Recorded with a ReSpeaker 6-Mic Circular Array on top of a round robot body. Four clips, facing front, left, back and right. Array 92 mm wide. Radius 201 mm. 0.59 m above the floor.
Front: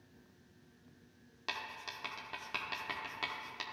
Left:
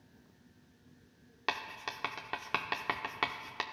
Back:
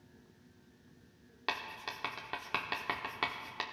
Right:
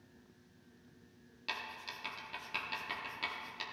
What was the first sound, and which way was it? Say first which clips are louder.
Writing: left 7 dB, back 4 dB; 110° left.